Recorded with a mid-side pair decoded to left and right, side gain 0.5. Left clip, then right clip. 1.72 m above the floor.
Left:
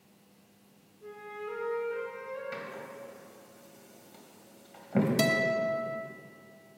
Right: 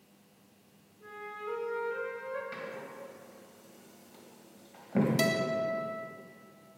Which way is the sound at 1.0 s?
65° right.